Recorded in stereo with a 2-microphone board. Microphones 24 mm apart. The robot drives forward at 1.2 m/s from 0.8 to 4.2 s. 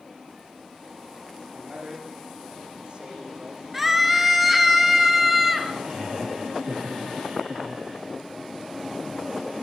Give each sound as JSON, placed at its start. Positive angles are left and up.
{"t": 1.5, "sound": "a man speaking", "side_deg": -55, "distance_m": 8.0}
{"t": 3.7, "sound": "a scream", "side_deg": -10, "distance_m": 3.0}
{"t": 5.7, "sound": "laughter", "side_deg": -45, "distance_m": 4.5}